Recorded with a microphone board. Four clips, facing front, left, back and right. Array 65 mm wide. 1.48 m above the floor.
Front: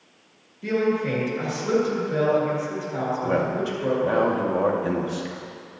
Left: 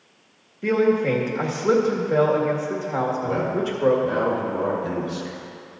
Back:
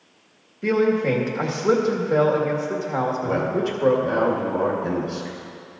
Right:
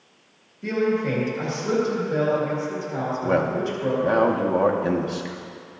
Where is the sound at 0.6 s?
140° left, 1.8 m.